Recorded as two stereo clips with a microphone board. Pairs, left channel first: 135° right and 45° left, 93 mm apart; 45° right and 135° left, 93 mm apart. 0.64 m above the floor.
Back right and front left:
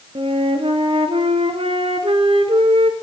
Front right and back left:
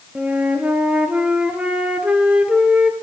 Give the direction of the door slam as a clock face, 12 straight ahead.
I don't hear a door slam.